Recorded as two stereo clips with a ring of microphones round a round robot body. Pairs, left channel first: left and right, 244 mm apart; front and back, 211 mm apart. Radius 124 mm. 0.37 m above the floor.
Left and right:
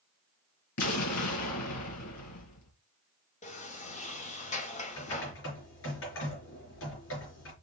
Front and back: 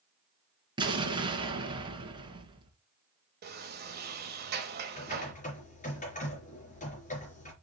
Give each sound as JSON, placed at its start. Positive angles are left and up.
{"t": 0.8, "sound": "an explosion", "azimuth_deg": 110, "distance_m": 2.5}
{"t": 3.4, "sound": "a sliding door", "azimuth_deg": 150, "distance_m": 1.5}
{"t": 5.0, "sound": "typing on a keyboard", "azimuth_deg": 55, "distance_m": 4.5}